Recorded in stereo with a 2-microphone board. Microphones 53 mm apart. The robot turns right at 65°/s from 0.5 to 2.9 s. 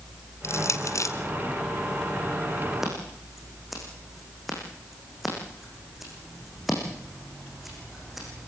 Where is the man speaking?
I don't hear a man speaking.